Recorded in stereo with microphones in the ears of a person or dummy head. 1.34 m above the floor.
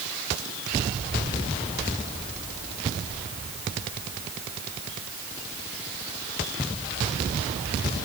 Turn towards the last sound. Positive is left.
No sound to turn to.